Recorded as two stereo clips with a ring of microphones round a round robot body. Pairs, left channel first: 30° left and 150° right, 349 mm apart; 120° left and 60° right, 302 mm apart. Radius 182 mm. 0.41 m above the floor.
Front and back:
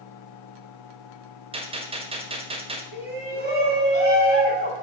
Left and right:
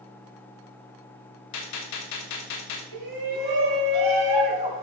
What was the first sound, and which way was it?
A gunshot, 135° left.